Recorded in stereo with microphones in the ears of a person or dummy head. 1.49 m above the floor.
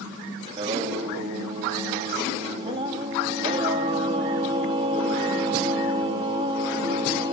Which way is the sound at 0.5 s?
30° right (ahead or behind).